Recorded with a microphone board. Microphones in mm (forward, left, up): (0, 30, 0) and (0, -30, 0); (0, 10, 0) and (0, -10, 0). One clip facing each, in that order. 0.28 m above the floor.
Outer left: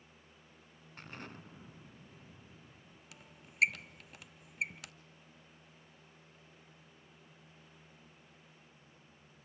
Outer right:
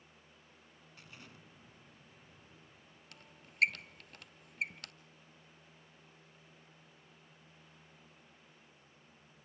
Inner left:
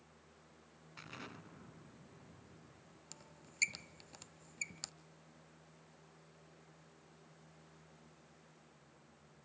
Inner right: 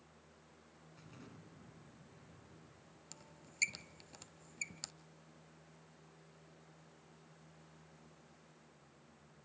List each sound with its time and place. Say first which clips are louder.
1.0 s an explosion: outer left 8 dB, inner left 8 dB; 60° left (ahead or behind), 0.6 m
3.1 s a squeak: even, even; 5° left (ahead or behind), 0.8 m